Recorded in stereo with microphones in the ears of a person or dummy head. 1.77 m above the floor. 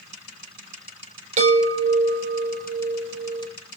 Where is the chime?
40° right (ahead or behind), 3.5 m.